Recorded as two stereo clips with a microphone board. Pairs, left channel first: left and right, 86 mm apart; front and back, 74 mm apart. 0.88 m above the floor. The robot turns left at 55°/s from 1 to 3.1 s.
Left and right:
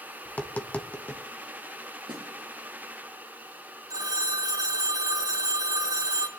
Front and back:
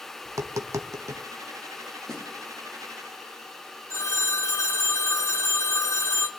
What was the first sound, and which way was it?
Tapping, 155° left.